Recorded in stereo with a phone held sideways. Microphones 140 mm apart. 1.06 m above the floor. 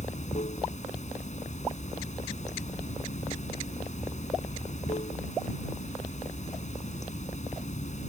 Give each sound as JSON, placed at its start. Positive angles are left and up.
{"t": 0.0, "sound": "running water", "side_deg": 60}